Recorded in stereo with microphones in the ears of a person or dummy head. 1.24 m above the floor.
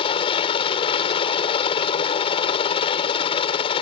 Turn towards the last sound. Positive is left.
turn(degrees=35)  # may be behind; listen again after turning